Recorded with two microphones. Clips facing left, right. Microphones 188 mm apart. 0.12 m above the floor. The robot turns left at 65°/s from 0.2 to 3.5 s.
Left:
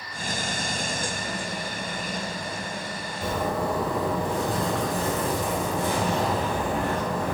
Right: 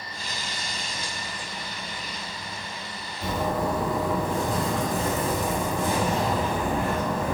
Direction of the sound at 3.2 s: 80° left.